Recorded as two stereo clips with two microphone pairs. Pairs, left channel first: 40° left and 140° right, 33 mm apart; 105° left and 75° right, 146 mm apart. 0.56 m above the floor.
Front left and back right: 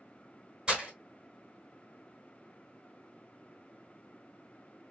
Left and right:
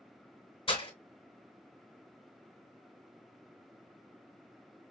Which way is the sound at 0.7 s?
155° left.